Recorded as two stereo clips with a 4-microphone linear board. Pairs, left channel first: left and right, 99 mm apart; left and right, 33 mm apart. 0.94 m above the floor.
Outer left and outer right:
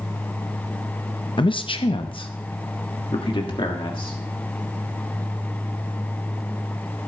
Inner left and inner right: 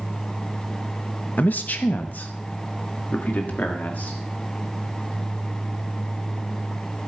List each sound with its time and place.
1.4 s a man speaking: 55° left (ahead or behind), 0.7 m; by 4.2 s 60° left (ahead or behind), 2 m